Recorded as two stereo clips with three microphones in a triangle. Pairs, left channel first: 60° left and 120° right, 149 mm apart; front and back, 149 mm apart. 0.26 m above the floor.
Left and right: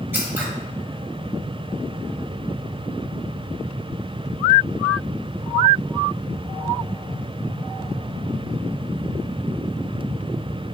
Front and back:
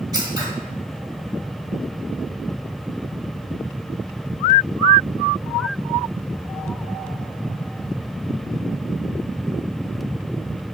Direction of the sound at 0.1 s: Straight behind.